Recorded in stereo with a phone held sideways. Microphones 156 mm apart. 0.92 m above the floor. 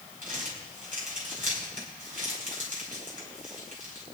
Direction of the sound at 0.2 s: 60° right (ahead or behind).